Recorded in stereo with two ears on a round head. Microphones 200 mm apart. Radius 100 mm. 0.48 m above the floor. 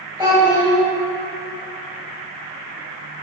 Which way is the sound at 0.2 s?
15° right (ahead or behind).